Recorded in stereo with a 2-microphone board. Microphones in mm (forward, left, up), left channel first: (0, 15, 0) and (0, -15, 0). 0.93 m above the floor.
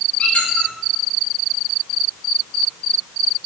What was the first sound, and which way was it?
A squeak, 50° left (ahead or behind).